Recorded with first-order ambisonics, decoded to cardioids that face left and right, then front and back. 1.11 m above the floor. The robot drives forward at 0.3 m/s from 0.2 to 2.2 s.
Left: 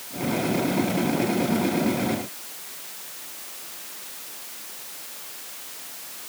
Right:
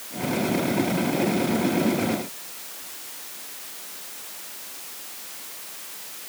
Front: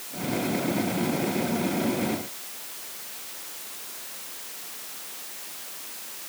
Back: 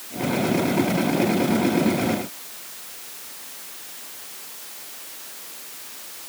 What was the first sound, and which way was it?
Only background noise.